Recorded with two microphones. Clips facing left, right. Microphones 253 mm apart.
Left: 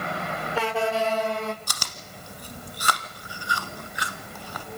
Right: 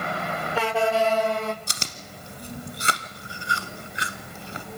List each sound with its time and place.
1.7 s chewing: 25° right (ahead or behind), 1.1 m